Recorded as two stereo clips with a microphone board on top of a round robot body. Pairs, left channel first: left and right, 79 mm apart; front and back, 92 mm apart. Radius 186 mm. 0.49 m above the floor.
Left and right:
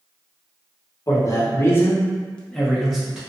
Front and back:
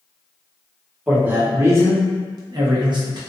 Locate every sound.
1.1 s a man speaking: 110° left, 1.2 m; by 3.2 s 170° right, 1.3 m